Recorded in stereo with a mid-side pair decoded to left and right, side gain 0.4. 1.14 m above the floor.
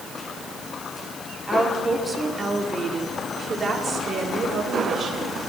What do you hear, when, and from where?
1.5 s a woman speaking: 15° right, 4 m; by 5.4 s 60° right, 4 m